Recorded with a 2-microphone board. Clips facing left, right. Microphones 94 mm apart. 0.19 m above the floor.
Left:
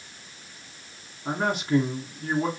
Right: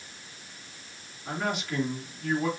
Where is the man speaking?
40° left (ahead or behind), 2 m.